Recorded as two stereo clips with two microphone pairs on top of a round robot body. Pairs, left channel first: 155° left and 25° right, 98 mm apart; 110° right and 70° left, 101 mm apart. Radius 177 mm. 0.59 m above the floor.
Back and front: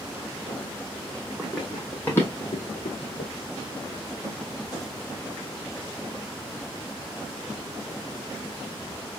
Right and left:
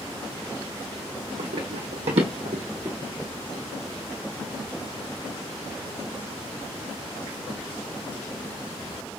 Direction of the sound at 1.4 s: 65° left.